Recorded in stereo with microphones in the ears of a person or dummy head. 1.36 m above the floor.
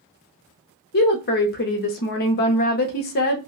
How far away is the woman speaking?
About 0.6 m.